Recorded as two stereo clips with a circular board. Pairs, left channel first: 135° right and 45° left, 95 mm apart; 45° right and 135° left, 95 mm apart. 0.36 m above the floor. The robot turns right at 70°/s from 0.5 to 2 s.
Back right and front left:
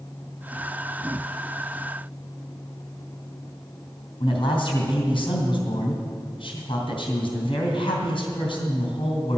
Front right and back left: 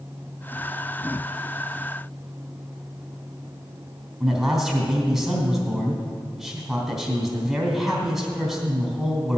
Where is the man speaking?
135° right, 3 m.